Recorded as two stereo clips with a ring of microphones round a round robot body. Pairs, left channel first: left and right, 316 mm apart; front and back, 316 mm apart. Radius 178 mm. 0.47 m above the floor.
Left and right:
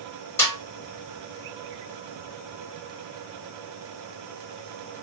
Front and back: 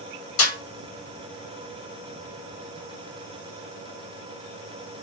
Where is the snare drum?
10° left, 1.8 m.